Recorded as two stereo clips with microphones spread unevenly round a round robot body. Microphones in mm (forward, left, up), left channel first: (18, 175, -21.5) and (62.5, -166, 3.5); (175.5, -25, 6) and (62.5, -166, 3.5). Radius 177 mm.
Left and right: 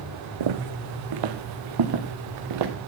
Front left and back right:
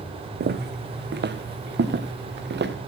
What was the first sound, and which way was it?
Footsteps, 105° right.